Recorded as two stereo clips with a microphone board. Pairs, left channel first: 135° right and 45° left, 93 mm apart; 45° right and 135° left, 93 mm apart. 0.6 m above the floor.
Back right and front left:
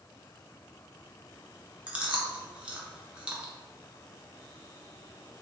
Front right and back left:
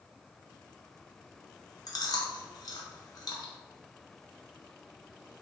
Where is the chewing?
30° right, 0.5 m.